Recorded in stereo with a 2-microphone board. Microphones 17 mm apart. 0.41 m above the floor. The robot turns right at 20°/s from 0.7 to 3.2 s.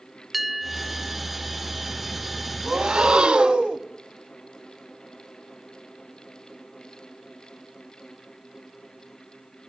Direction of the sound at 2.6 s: 85° right.